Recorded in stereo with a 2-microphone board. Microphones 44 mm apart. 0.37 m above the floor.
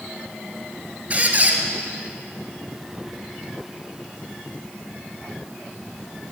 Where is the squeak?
35° right (ahead or behind), 0.7 m.